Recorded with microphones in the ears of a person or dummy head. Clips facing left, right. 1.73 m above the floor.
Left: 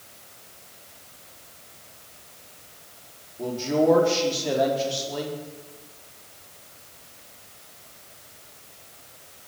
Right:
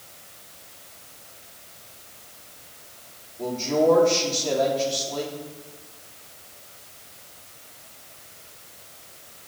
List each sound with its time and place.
3.4 s a man speaking: 10° left (ahead or behind), 4 m